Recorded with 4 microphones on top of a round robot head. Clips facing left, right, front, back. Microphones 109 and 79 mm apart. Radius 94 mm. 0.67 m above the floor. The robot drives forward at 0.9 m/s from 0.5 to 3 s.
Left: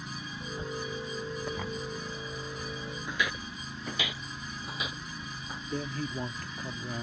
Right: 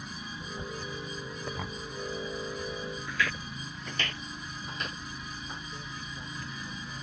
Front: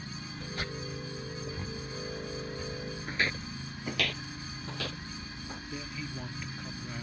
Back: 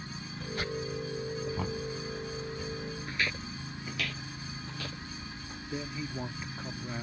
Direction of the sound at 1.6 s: 175° right.